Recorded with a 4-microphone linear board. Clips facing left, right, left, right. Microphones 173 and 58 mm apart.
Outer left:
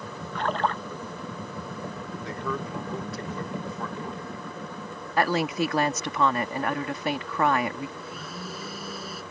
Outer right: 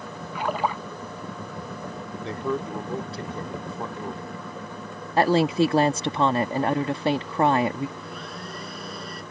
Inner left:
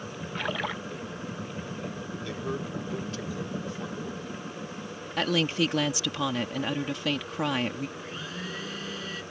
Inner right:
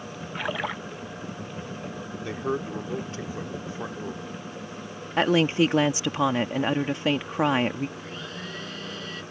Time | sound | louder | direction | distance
0.3 | a splash | outer right 1 dB, inner right 2 dB | 5° right (ahead or behind) | ?
2.2 | a man speaking | outer right 5 dB, inner right 6 dB | 25° right (ahead or behind) | ?
5.2 | a woman speaking | outer right 5 dB, inner right 6 dB | 25° right (ahead or behind) | ?
8.0 | a blender | outer right 1 dB, even | 5° left (ahead or behind) | ?